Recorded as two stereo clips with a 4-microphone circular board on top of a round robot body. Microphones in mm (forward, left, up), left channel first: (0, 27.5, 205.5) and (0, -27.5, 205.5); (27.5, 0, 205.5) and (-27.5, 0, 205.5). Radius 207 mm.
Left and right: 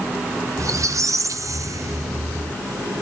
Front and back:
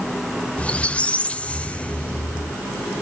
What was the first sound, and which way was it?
A squeak, 65° right.